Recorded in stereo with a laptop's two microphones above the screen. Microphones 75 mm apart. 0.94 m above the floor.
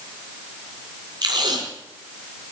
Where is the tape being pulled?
75° right (ahead or behind), 3 m.